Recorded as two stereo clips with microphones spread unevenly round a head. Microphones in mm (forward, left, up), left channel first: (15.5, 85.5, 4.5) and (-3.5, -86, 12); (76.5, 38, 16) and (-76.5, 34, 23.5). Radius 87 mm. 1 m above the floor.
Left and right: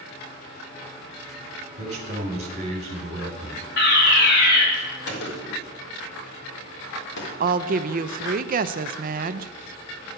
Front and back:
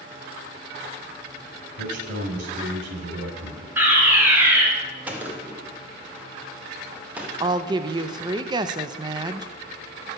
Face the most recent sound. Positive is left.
turn(degrees=-120)